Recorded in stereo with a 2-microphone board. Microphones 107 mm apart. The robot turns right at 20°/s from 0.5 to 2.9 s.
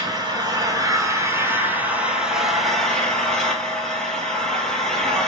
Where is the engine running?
40° right, 1.0 m; by 5.3 s 5° left, 1.0 m.